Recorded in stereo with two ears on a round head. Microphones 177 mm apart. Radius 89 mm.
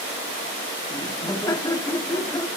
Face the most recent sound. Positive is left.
turn(degrees=20)  # may be behind; listen again after turning